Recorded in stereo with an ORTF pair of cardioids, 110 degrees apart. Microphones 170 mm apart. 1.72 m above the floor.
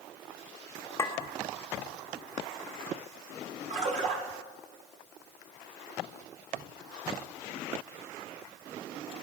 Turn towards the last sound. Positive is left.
turn(degrees=-50)